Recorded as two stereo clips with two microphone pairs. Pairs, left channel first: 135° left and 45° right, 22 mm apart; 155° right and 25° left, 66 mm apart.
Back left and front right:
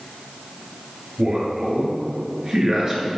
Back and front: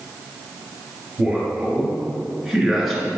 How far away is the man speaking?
About 1.5 m.